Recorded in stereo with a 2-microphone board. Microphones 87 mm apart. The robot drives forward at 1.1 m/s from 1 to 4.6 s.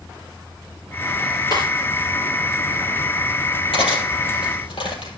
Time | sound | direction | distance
1.5 | a snare drum | 50° left (ahead or behind) | 5.5 m
3.7 | cutlery clinking | 80° left | 4.5 m